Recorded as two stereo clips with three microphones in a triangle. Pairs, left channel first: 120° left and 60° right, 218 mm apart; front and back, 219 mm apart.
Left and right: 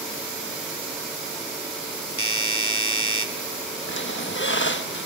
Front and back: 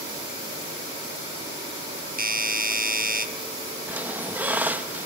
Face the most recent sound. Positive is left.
turn(degrees=100)